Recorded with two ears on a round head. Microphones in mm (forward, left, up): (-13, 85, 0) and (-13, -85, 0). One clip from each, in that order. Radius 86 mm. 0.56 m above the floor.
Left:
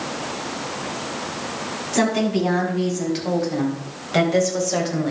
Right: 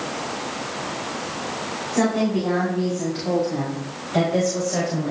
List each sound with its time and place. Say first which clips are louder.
1.9 s a woman speaking: left 2 dB; 75° left (ahead or behind), 5 m; by 5.1 s 60° left (ahead or behind), 3 m